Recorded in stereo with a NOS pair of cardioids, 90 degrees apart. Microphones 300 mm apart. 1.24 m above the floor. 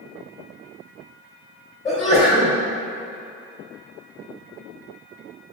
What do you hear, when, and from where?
1.9 s a sneeze: 25° left, 0.9 m